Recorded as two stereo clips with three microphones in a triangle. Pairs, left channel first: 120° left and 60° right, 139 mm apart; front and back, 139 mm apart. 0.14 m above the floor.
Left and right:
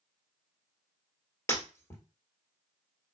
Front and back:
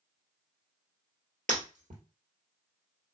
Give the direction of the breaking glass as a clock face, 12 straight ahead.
6 o'clock.